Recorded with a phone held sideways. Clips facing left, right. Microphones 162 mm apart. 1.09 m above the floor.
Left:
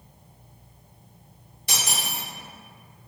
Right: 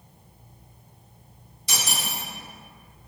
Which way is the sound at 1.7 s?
60° left (ahead or behind).